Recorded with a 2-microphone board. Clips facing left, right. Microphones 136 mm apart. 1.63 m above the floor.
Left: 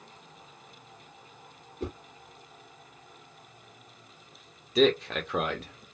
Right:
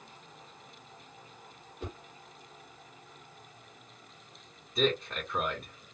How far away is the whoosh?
About 2 m.